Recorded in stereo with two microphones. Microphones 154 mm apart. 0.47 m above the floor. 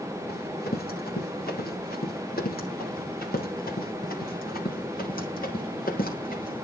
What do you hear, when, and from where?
0.3 s running footsteps: 85° left, 7 m; by 6.7 s 70° left (ahead or behind), 10 m